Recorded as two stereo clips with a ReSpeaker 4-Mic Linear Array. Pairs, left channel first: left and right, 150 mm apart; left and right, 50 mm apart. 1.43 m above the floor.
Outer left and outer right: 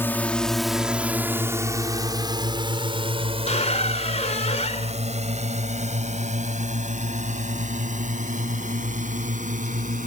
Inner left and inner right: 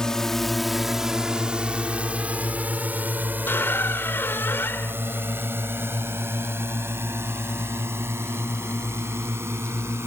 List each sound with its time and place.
0.0 s a drone: 15° left (ahead or behind); by 10.1 s 60° right (ahead or behind)
3.5 s a squeak: 50° left (ahead or behind)